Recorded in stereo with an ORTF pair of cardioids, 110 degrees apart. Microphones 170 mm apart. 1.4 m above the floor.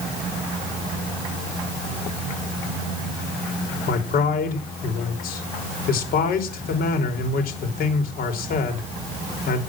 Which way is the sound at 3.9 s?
65° left.